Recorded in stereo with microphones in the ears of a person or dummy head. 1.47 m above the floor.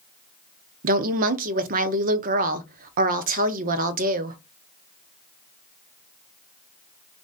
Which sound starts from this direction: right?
A woman speaking, at 0.8 s.